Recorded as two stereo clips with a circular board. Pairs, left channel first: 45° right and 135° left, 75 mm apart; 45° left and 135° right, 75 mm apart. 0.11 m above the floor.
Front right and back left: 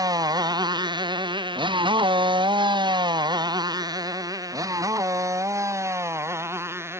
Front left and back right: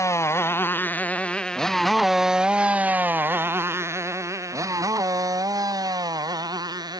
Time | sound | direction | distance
0.0 | a motorcycle | 95° left | ?